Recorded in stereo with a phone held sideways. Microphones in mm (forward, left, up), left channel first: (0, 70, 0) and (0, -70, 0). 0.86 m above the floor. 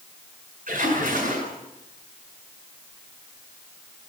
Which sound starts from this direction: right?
A splash, at 0.7 s.